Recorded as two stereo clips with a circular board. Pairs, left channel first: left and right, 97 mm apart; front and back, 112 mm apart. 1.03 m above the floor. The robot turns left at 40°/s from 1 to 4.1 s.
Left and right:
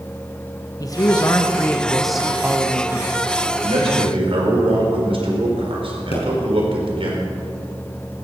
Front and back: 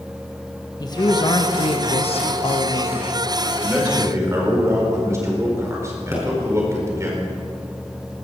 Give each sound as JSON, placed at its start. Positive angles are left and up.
{"t": 0.8, "sound": "a man speaking", "azimuth_deg": 45, "distance_m": 1.3}
{"t": 3.6, "sound": "a man speaking", "azimuth_deg": -95, "distance_m": 4.5}
{"t": 6.1, "sound": "a pop", "azimuth_deg": 110, "distance_m": 5.0}